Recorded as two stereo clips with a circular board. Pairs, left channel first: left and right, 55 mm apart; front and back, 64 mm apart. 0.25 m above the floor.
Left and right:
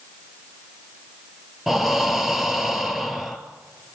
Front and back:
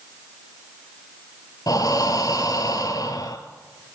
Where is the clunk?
No clunk in this recording.